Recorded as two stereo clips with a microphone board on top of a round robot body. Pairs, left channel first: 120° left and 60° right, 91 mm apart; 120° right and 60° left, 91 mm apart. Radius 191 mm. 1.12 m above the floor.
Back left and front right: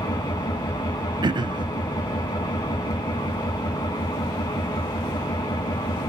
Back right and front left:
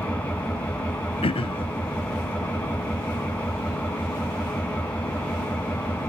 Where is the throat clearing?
100° right, 0.7 m.